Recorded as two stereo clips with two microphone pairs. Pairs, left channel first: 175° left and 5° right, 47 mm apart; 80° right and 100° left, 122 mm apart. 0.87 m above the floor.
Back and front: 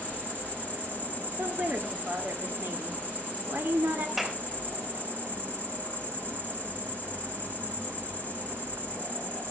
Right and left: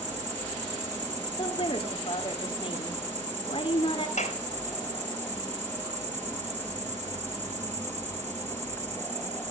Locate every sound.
0.0 s an insect: 120° left, 2.5 m
1.4 s a woman speaking: 40° right, 2.5 m
4.2 s a clap: 85° right, 3 m